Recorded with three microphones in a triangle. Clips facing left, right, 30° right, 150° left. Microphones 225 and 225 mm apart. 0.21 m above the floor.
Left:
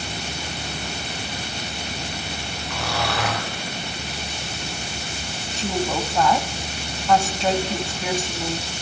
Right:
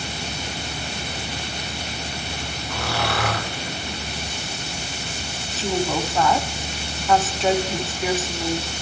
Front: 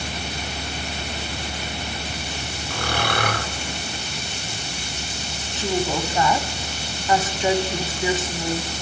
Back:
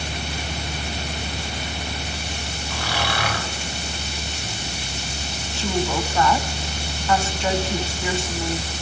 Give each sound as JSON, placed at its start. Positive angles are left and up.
{"t": 2.7, "sound": "snoring", "azimuth_deg": 0, "distance_m": 3.0}
{"t": 5.5, "sound": "a woman speaking", "azimuth_deg": -5, "distance_m": 1.5}